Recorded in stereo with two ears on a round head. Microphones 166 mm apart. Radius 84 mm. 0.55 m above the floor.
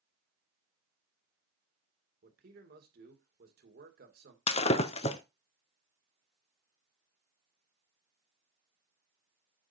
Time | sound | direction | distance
2.2 | a man speaking | 55° right (ahead or behind) | 2 m
4.5 | breaking glass | 30° left (ahead or behind) | 0.7 m